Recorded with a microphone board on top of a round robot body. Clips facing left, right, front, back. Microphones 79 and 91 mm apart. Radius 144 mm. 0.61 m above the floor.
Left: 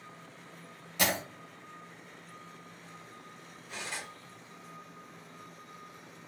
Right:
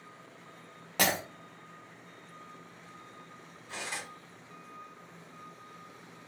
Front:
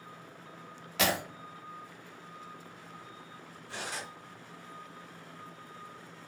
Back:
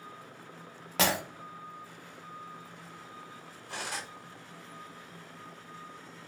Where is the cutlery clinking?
160° right, 1.8 m.